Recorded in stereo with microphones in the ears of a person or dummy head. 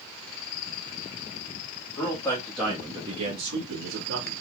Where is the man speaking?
25° left (ahead or behind), 1.1 m; by 4.3 s 85° right, 1.2 m.